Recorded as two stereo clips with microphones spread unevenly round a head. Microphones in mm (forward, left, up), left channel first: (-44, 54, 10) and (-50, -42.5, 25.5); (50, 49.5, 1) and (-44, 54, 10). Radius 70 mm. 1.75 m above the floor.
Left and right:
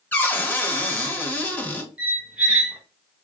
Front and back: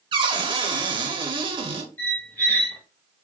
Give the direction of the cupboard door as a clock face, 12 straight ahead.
7 o'clock.